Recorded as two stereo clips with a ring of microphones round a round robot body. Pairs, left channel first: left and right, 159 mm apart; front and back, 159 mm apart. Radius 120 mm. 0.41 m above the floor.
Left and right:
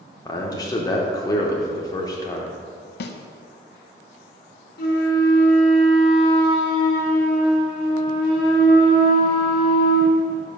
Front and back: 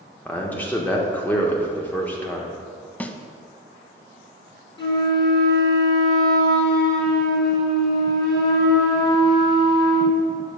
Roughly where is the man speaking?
Ahead left.